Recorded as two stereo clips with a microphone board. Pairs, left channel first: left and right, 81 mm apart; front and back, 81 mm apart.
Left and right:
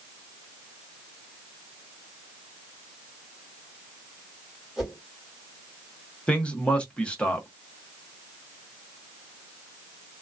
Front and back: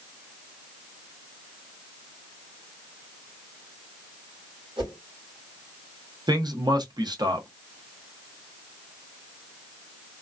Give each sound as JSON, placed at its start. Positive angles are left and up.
{"t": 4.8, "sound": "a whoosh", "azimuth_deg": -175, "distance_m": 1.8}
{"t": 6.3, "sound": "a man speaking", "azimuth_deg": 165, "distance_m": 0.9}